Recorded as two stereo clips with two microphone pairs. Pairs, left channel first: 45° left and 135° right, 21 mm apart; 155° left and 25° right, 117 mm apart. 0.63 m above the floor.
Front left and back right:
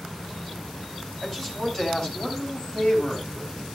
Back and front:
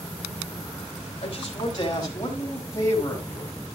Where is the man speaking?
115° left, 3.5 m; by 3.5 s 80° left, 5 m.